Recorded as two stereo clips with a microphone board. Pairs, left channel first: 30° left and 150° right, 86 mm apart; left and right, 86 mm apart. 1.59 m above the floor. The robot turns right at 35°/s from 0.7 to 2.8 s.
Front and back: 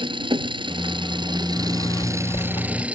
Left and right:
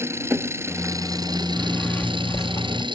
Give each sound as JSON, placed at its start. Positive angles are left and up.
{"t": 0.0, "sound": "an engine running", "azimuth_deg": -150}
{"t": 1.6, "sound": "a zipper", "azimuth_deg": 5}